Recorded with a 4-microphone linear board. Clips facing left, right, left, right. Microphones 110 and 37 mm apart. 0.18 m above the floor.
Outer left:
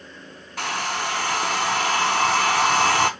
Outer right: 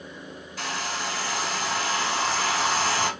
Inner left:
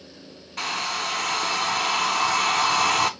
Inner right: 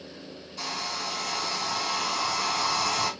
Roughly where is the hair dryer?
Left.